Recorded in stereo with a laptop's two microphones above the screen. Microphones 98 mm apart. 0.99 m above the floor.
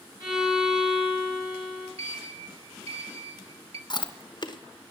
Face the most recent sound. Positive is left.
turn(degrees=50)  # may be behind; listen again after turning